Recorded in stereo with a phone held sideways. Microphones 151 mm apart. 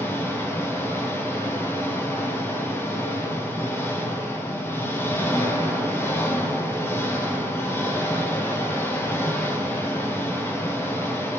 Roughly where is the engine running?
Centre.